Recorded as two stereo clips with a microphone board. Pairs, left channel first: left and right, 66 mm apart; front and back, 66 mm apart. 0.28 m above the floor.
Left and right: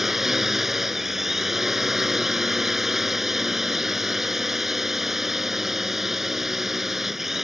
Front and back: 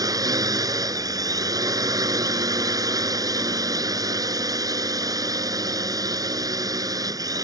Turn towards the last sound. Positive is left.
turn(degrees=-175)